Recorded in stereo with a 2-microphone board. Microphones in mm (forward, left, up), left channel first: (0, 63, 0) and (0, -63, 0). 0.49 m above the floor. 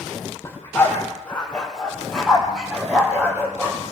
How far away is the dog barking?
About 4.5 m.